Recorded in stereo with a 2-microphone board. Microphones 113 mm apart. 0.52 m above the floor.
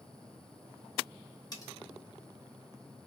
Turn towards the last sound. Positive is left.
turn(degrees=35)  # may be behind; listen again after turning